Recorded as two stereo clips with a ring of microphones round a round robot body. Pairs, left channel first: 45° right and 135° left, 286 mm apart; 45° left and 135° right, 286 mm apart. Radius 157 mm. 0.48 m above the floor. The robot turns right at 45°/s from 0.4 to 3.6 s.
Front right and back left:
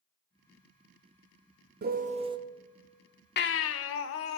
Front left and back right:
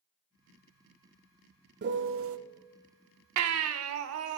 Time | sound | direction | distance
1.8 | a piano | straight behind | 0.6 m
3.4 | a baby crying | 100° right | 0.5 m